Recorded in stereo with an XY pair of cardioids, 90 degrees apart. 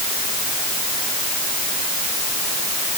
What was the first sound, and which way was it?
Only background noise.